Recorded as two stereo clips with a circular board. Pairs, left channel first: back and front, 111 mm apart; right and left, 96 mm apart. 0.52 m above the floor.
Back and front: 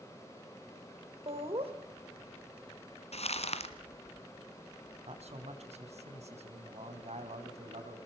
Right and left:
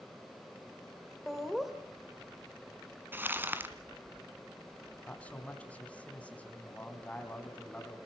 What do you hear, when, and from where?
1.3 s laughter: straight ahead, 2.5 m
3.1 s crumpling: 160° left, 1.7 m
5.1 s a man speaking: 15° right, 3.5 m